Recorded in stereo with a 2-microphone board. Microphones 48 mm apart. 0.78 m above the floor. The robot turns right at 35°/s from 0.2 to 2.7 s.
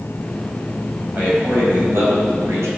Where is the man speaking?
155° right, 4.5 m; by 2.7 s 100° right, 4.5 m.